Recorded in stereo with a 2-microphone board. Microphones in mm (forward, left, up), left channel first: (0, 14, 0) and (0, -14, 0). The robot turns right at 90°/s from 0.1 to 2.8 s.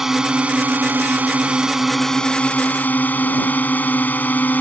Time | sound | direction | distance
0.0 | a drone | 165° right | ?